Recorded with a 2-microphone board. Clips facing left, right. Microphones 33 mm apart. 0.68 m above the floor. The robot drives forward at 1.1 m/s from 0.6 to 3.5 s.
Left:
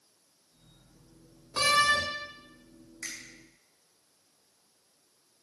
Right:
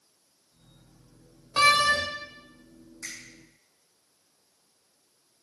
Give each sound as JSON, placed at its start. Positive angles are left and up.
{"t": 1.6, "sound": "a door slam", "side_deg": -50, "distance_m": 1.4}
{"t": 3.0, "sound": "a finger snap", "side_deg": 55, "distance_m": 4.5}